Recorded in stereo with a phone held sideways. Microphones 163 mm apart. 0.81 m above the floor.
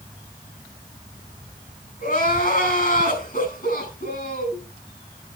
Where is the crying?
50° left (ahead or behind), 7 m.